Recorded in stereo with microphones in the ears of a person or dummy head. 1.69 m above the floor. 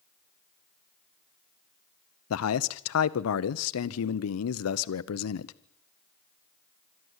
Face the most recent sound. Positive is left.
turn(degrees=85)